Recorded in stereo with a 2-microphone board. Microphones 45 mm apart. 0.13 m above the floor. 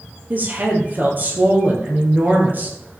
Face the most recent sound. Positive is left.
turn(degrees=-45)  # may be behind; listen again after turning